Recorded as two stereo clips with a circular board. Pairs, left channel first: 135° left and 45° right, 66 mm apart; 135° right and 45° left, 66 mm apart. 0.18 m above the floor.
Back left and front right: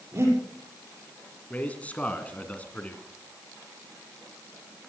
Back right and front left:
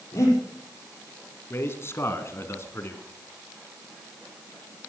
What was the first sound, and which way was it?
Breathing, 90° right.